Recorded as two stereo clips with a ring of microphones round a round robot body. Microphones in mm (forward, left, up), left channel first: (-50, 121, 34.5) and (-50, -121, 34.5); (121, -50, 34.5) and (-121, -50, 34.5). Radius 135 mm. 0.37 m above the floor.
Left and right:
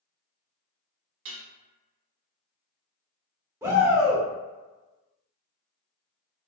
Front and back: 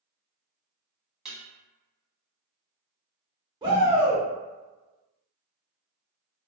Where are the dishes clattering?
90° right, 1.1 m.